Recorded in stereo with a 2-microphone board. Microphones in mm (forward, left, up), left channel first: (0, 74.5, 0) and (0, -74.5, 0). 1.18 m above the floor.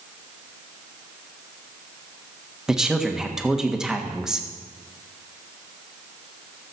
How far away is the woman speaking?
About 1.4 m.